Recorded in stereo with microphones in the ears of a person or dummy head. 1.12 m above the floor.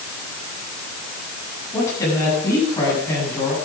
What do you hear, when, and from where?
1.7 s a woman speaking: 20° left (ahead or behind), 8.5 m